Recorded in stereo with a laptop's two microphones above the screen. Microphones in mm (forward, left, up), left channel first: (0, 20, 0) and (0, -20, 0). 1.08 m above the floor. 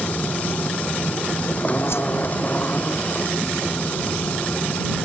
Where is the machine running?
35° left (ahead or behind).